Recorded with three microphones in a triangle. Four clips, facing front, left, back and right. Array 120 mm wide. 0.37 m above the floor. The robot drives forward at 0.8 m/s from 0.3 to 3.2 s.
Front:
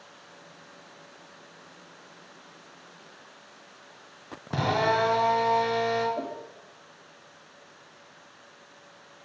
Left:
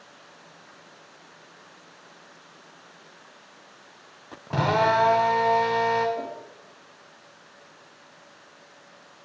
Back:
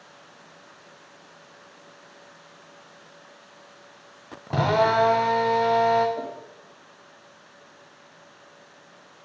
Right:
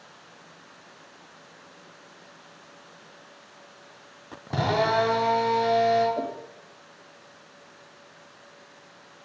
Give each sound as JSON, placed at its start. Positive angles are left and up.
{"t": 4.5, "sound": "a drill", "azimuth_deg": 165, "distance_m": 2.0}
{"t": 6.2, "sound": "a whoosh", "azimuth_deg": -95, "distance_m": 2.0}